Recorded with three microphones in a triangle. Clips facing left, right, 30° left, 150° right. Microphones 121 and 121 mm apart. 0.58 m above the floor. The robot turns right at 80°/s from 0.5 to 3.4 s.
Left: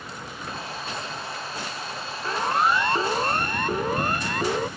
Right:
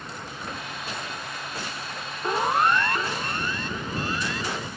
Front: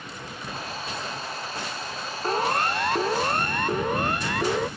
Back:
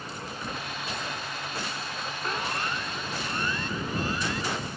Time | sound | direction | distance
2.2 | a siren | 25° right | ?